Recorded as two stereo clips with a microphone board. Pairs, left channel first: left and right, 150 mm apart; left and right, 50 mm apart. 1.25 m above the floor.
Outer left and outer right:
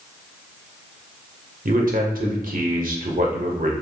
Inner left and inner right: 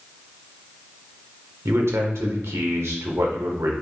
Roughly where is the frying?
No frying in this recording.